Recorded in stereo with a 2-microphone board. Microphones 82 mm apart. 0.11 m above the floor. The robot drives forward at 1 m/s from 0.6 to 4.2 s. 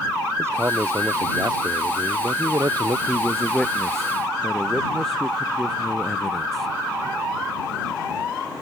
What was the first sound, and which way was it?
A man speaking, 35° right (ahead or behind).